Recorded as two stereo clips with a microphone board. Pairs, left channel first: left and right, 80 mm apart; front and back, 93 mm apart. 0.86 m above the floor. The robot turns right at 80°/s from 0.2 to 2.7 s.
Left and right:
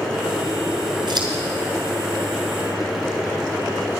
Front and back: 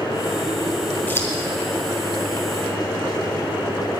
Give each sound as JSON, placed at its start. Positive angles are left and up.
{"t": 1.1, "sound": "scissors", "azimuth_deg": -70, "distance_m": 3.0}